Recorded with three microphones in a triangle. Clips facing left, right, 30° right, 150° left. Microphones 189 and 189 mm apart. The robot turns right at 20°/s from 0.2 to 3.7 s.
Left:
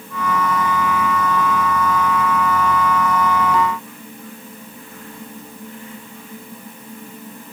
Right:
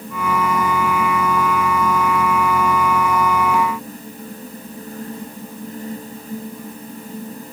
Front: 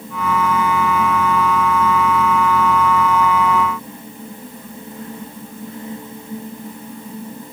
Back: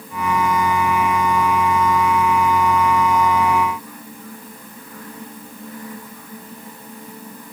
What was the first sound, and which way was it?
Only background noise.